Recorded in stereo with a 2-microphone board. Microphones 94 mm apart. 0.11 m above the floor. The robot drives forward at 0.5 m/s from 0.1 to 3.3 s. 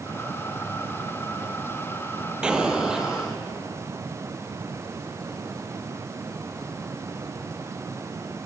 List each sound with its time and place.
2.4 s an explosion: 10° right (ahead or behind), 0.6 m; by 3.4 s 5° right (ahead or behind), 1.0 m